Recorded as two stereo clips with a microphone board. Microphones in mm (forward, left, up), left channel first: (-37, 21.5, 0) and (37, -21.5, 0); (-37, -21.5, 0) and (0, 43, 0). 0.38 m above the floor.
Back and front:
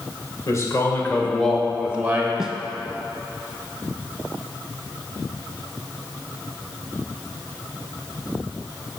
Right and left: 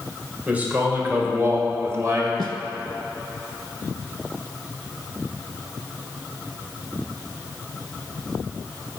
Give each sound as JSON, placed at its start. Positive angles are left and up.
{"t": 0.5, "sound": "a man speaking", "azimuth_deg": 125, "distance_m": 1.7}
{"t": 2.4, "sound": "a snare drum", "azimuth_deg": 50, "distance_m": 0.7}